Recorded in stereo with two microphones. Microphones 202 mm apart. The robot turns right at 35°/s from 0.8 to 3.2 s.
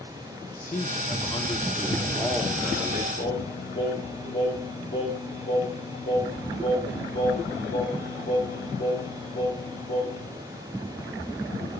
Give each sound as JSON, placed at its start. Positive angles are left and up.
{"t": 0.5, "sound": "a man speaking", "azimuth_deg": 125, "distance_m": 1.0}
{"t": 3.2, "sound": "singing", "side_deg": 55, "distance_m": 2.0}